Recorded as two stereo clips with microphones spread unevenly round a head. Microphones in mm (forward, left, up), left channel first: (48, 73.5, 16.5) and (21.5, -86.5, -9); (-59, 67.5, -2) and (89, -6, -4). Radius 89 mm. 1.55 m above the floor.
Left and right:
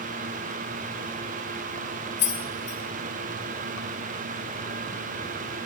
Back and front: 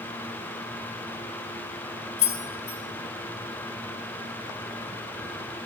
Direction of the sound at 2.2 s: 105° left.